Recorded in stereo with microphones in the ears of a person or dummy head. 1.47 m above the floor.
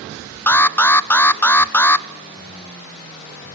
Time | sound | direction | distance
0.5 | an alarm | 10° left (ahead or behind) | 0.6 m